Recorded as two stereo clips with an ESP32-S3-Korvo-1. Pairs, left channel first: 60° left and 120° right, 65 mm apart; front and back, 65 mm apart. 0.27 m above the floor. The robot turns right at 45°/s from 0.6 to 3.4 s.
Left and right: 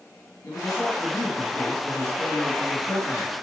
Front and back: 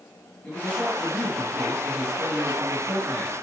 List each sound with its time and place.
0.4 s a man speaking: 70° left, 6 m; by 3.3 s 170° right, 6 m